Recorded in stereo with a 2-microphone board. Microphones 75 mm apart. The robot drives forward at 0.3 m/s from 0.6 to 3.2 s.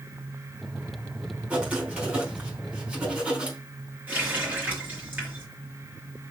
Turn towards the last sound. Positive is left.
turn(degrees=-20)  # may be behind; listen again after turning